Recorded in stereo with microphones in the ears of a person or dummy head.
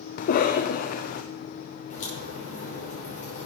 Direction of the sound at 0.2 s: 50° left (ahead or behind).